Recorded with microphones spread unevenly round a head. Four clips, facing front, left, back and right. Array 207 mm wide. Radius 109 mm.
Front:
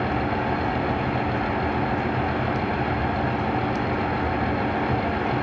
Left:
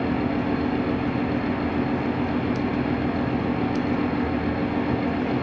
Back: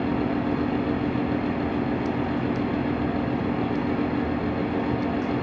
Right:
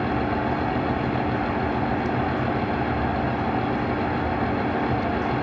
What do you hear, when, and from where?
0.0 s a fan: 55° right, 3 m